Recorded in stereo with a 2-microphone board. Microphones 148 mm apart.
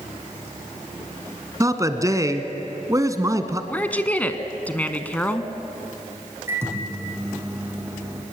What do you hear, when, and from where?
1.6 s a man speaking: 25° right (ahead or behind), 1.3 m
3.7 s a woman speaking: 10° left (ahead or behind), 1.1 m
6.5 s a microwave: 15° right (ahead or behind), 4.5 m